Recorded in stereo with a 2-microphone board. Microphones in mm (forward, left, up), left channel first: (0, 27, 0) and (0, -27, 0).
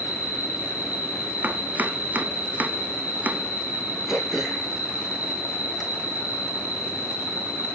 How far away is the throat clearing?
About 1.8 m.